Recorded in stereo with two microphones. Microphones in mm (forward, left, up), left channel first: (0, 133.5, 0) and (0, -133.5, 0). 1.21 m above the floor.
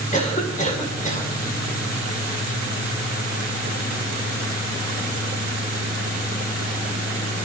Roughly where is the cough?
Left.